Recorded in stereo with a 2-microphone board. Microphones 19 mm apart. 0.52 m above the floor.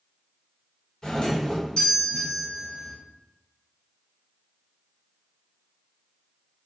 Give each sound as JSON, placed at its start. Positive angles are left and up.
{"t": 1.0, "sound": "a doorbell", "side_deg": 45, "distance_m": 1.5}